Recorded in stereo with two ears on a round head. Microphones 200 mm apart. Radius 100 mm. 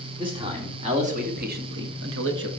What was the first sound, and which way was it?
A man speaking, 25° right (ahead or behind).